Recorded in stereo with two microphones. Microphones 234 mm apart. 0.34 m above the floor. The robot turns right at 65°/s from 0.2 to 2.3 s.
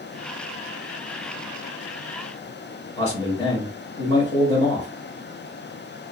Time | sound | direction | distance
3.0 | a man speaking | 25° left (ahead or behind) | 1.5 m